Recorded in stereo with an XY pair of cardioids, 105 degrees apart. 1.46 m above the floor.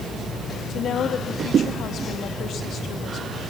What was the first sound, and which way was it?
A woman speaking, 60° left.